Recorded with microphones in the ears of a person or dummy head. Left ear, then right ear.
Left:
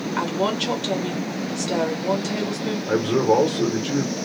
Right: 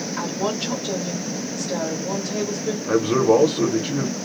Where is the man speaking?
30° right (ahead or behind), 0.6 m.